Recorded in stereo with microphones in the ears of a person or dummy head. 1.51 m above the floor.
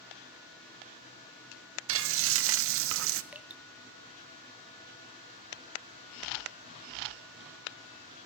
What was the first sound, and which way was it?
Frying, 65° right (ahead or behind).